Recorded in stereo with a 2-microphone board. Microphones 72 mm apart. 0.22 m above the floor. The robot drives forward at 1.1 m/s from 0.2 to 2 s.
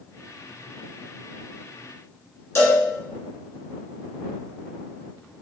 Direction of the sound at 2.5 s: 35° left (ahead or behind).